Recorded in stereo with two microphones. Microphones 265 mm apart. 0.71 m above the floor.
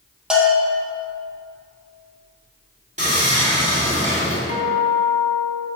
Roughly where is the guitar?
Left.